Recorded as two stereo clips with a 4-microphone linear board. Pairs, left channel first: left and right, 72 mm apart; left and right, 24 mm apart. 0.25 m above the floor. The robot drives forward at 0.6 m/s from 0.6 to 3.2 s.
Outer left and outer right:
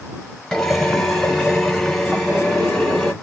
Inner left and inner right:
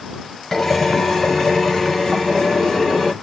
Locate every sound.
0.5 s a drill: 5° left (ahead or behind), 0.9 m